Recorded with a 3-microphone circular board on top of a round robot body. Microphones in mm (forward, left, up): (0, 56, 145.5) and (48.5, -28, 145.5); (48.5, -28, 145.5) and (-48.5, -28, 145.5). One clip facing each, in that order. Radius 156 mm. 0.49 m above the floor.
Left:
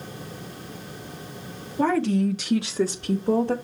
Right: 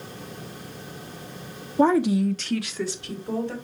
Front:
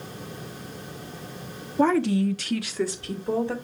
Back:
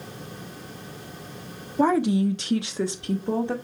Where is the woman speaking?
105° right, 1.3 m; by 3.5 s 115° left, 1.8 m.